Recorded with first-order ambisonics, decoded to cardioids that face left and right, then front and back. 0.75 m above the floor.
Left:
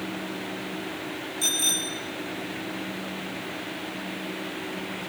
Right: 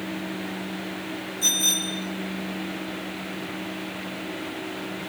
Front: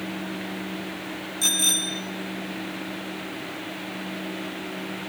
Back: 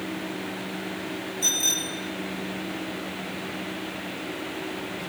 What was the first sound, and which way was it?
A bicycle bell, 30° left.